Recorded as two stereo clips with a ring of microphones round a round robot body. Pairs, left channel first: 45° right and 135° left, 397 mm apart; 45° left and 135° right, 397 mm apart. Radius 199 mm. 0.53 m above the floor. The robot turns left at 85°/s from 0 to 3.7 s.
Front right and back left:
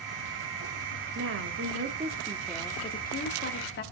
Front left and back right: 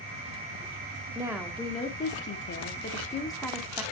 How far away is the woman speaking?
About 0.9 m.